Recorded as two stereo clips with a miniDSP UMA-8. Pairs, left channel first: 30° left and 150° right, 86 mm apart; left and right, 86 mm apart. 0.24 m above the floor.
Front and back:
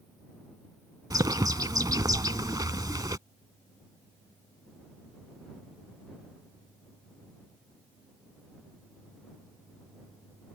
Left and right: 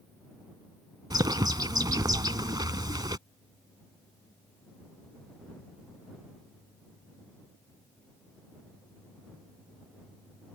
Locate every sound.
1.1 s a bird: 115° right